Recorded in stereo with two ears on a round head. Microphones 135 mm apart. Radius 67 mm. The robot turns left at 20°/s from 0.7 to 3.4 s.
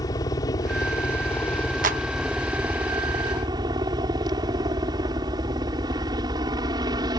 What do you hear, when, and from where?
0.0 s a helicopter: 25° left; by 7.2 s 30° right
1.8 s a clap: 60° right (ahead or behind); by 2.0 s 55° right (ahead or behind)